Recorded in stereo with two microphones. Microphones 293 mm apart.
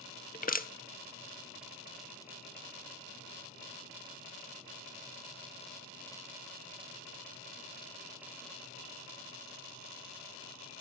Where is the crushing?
30° left (ahead or behind), 0.6 m.